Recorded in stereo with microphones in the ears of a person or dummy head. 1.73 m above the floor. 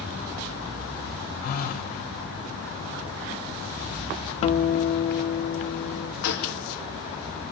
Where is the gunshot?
70° left (ahead or behind), 3.5 m.